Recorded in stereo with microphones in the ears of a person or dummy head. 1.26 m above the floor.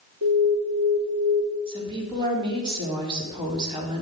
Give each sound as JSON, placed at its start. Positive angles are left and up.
{"t": 0.2, "sound": "an alarm", "side_deg": -85, "distance_m": 4.5}
{"t": 1.7, "sound": "a woman speaking", "side_deg": -35, "distance_m": 4.0}